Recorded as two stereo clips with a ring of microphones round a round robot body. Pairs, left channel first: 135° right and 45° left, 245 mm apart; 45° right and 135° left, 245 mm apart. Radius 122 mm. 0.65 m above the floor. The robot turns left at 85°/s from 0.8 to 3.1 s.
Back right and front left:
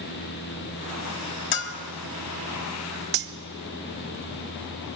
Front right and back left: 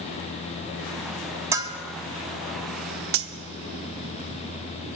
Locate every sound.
1.5 s a bell: 150° right, 0.6 m; by 1.8 s 175° right, 0.6 m
3.1 s cutlery clinking: 100° left, 0.6 m